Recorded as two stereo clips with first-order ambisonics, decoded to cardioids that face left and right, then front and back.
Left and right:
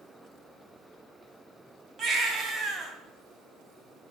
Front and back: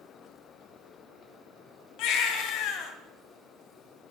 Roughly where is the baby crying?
Ahead right.